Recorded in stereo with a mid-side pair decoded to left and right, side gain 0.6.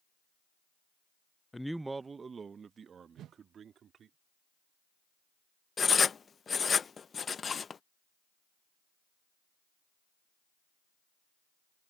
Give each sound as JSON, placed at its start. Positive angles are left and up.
{"t": 1.5, "sound": "a man speaking", "azimuth_deg": 10}
{"t": 3.2, "sound": "a whoosh", "azimuth_deg": -55}
{"t": 5.8, "sound": "writing", "azimuth_deg": 30}